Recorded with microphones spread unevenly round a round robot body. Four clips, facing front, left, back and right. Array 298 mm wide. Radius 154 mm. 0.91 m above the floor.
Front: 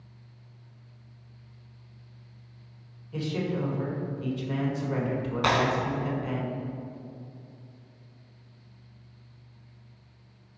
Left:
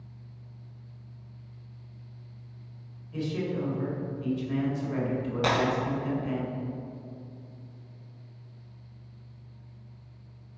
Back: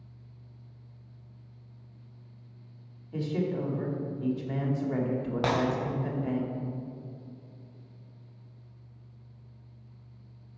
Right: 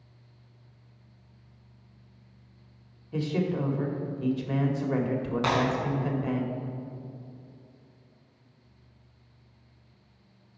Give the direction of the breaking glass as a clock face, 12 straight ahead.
6 o'clock.